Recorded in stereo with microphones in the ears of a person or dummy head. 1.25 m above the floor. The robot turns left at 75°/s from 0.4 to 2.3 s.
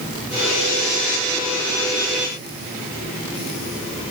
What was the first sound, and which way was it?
Only background noise.